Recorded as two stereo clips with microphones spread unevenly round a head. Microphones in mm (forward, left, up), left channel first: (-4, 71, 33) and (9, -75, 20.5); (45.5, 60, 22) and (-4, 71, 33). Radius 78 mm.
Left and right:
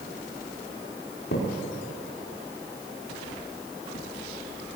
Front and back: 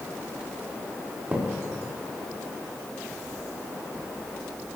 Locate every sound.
1.3 s a thud: 110° left, 5.5 m